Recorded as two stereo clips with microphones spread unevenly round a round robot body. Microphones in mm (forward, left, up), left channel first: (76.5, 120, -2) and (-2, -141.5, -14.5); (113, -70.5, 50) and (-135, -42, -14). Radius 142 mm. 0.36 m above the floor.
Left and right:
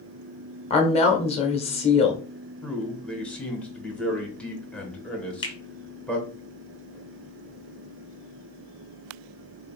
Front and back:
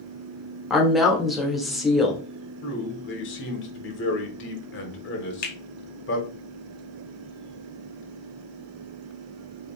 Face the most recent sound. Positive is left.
turn(degrees=25)